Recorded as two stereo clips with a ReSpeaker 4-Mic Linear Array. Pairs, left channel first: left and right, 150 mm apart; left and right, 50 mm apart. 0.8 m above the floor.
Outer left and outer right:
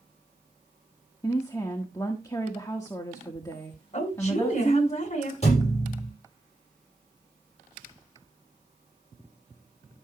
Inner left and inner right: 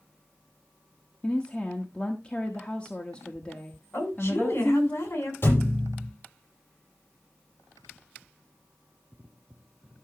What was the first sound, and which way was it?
A woman speaking, 20° left (ahead or behind).